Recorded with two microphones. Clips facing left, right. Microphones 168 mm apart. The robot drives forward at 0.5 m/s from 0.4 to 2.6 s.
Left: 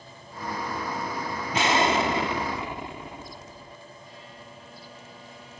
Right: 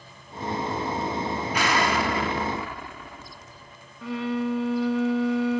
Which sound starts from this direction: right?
A violin, at 4.0 s.